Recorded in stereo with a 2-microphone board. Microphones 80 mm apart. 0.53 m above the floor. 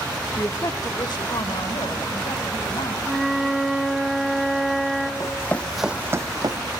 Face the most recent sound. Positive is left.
turn(degrees=-60)  # may be behind; listen again after turning